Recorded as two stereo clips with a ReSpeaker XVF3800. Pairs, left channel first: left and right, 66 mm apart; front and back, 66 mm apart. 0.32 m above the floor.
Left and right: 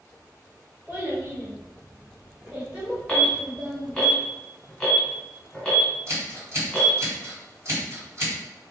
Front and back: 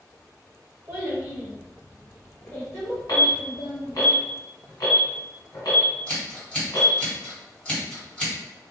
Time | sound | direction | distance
0.9 | a child speaking | 135° right | 1.3 m
3.1 | an alarm | 10° left | 1.6 m
6.1 | scissors | 70° right | 1.9 m